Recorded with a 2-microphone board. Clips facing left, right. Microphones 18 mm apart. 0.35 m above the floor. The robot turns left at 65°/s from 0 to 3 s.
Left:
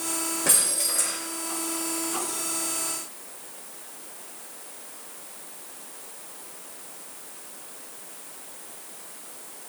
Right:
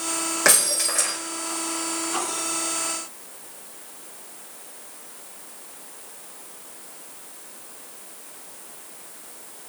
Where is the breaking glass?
105° right, 6.5 m; by 1.2 s 155° right, 6.5 m.